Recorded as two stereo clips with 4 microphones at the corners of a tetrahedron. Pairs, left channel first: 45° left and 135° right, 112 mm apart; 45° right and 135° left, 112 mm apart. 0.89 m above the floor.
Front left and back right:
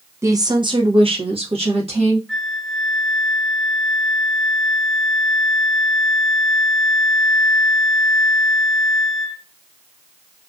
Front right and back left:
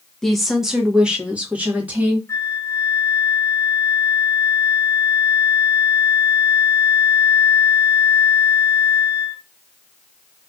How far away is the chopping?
No chopping in this recording.